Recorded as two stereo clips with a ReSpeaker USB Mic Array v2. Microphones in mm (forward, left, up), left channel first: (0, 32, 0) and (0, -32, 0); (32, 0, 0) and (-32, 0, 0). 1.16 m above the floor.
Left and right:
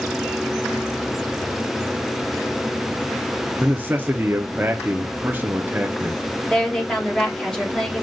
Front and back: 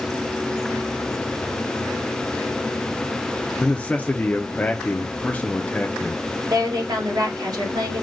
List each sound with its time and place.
3.6 s a man speaking: 50° right, 0.6 m
6.5 s a woman speaking: 170° left, 1.8 m